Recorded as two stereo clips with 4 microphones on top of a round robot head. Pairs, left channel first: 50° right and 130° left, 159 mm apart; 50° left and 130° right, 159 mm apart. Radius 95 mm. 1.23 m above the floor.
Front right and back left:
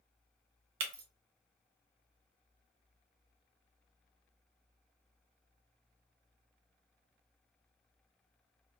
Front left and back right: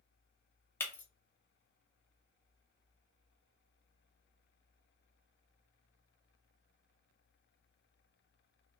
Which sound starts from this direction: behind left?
Breaking glass, at 0.8 s.